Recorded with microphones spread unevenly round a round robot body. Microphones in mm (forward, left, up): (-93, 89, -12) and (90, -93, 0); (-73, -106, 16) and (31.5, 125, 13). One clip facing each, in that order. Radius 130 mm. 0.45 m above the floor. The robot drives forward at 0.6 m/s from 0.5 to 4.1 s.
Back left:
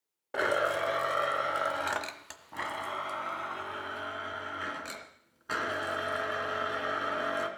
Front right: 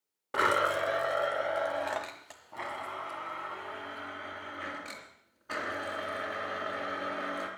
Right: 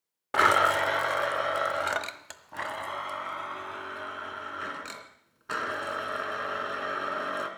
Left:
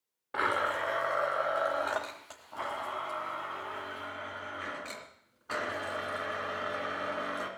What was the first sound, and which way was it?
A blender, 120° right.